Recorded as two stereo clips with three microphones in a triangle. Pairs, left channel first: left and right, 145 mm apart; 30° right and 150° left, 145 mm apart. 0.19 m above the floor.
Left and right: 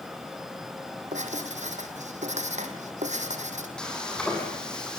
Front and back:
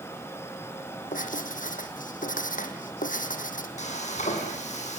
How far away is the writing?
About 2.5 m.